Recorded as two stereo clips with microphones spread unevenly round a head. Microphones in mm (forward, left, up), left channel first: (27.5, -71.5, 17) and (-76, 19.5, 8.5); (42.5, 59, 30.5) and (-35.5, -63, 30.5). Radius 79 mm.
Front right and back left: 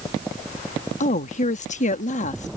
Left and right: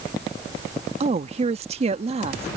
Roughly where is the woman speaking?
Right.